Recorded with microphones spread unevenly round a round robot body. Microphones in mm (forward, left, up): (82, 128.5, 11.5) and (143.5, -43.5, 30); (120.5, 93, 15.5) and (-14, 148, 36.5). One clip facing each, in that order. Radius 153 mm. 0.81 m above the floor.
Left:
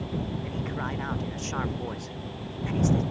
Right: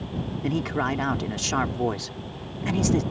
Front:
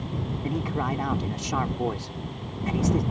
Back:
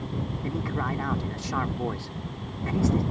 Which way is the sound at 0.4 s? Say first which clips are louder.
Right 7 dB, front 3 dB; 100° right.